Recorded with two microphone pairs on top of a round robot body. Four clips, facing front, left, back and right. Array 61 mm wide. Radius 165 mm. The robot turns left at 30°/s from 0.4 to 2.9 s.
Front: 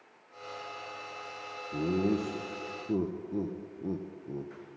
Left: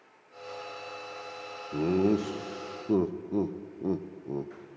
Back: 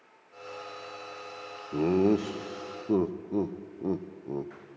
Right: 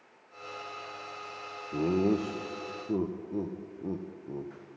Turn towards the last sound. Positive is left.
turn(degrees=140)